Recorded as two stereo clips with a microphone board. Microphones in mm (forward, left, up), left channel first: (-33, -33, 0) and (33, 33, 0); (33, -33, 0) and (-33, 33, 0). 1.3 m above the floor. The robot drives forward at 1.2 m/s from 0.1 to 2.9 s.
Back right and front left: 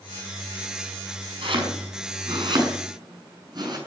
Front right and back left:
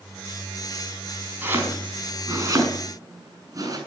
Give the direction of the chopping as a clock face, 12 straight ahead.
10 o'clock.